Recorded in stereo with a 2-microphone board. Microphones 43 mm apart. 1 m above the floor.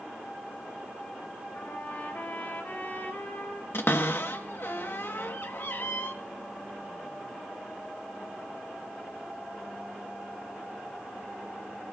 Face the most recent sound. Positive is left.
turn(degrees=60)  # may be behind; listen again after turning